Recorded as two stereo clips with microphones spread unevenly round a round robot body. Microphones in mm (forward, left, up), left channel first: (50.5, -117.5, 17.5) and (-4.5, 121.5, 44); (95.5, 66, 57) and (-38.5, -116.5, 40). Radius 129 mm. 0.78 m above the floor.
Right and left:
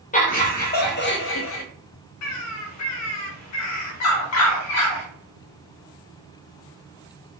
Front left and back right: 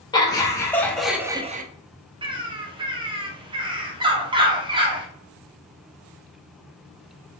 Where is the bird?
55° right, 0.9 m.